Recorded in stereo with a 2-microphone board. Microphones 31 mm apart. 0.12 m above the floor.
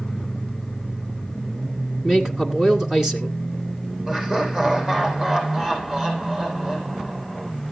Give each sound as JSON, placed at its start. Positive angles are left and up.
{"t": 2.0, "sound": "a man speaking", "side_deg": -25, "distance_m": 1.9}
{"t": 4.1, "sound": "laughter", "side_deg": -30, "distance_m": 6.0}